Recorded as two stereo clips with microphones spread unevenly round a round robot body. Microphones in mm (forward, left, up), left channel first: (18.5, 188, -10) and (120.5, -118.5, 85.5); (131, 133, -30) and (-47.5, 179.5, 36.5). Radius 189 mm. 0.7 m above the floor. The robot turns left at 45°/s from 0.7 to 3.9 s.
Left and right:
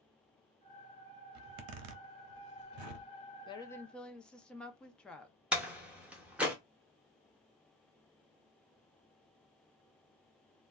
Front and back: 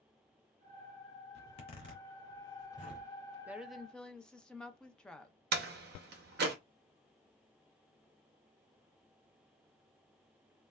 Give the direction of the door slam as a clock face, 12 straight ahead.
6 o'clock.